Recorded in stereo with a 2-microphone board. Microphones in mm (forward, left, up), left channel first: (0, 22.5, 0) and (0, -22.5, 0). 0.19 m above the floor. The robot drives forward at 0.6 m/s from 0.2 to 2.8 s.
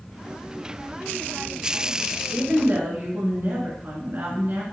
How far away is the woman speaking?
About 2 m.